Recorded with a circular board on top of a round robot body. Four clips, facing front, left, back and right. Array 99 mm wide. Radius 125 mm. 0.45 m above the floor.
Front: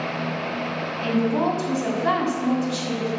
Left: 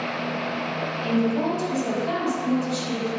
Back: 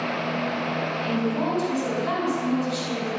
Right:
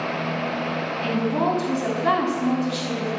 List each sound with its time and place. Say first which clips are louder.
1.0 s a woman speaking: even, front 6 dB; 50° right, 5 m